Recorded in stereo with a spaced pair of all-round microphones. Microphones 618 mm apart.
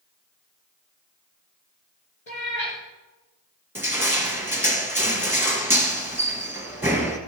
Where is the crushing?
5° right (ahead or behind), 1.3 m.